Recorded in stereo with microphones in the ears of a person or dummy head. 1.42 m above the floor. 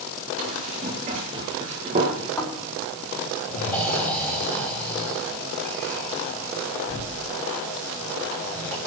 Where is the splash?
I don't hear a splash.